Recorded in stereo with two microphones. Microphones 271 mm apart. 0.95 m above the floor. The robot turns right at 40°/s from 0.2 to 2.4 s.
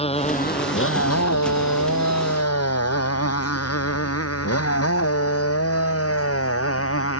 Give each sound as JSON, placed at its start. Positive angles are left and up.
{"t": 0.0, "sound": "a motorcycle", "side_deg": 20}